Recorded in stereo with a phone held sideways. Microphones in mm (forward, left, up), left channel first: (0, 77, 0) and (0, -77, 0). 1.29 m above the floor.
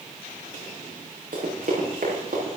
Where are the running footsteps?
65° right (ahead or behind), 5.5 m; by 2.5 s 70° right (ahead or behind), 6 m.